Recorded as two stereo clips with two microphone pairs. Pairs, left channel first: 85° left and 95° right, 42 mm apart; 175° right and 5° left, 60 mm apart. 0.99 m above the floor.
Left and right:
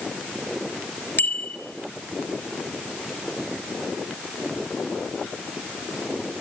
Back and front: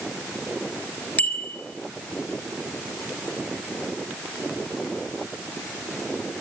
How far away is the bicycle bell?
About 3.5 m.